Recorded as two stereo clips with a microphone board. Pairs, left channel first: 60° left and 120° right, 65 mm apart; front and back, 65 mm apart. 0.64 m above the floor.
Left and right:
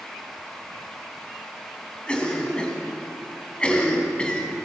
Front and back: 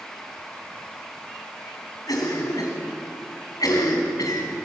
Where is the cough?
15° right, 5.5 m.